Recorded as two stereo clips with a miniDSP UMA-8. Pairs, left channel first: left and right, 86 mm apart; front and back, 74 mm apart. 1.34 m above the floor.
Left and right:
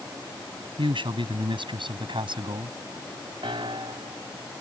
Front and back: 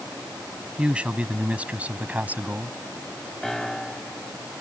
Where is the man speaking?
105° right; by 2.8 s 110° right.